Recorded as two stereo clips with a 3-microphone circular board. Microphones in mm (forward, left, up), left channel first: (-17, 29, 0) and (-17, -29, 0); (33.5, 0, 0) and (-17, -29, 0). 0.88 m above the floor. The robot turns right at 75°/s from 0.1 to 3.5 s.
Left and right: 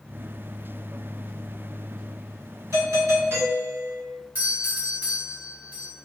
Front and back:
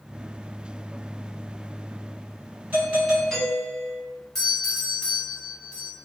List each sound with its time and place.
2.7 s a doorbell: 100° right, 1.8 m; by 4.0 s 40° right, 1.8 m
4.3 s a doorbell: 45° right, 1.7 m